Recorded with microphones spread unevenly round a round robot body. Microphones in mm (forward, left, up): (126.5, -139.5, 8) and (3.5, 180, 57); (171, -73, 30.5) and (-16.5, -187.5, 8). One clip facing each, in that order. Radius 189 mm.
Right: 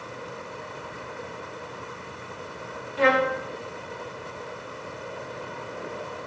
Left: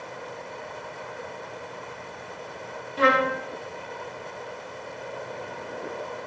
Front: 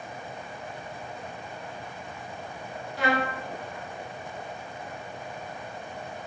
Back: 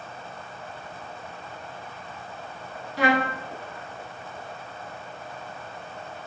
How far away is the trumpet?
About 1.8 m.